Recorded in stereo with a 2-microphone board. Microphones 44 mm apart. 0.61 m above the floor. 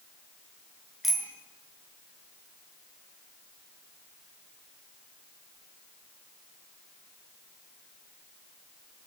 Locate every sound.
1.0 s a bicycle bell: centre (ahead or behind), 6 m